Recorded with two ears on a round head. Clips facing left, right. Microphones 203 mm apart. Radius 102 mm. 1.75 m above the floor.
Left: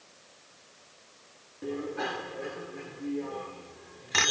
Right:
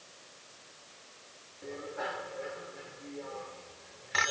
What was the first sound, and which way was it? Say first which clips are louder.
A bicycle bell: left 6 dB; 60° left (ahead or behind).